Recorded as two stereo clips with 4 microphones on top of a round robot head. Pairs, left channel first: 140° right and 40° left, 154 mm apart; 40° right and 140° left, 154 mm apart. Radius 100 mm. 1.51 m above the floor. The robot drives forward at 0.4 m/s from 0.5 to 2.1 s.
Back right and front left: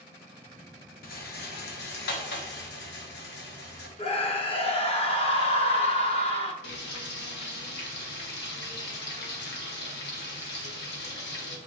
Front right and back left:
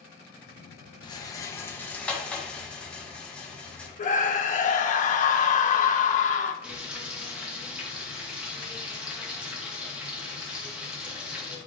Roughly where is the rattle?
Right.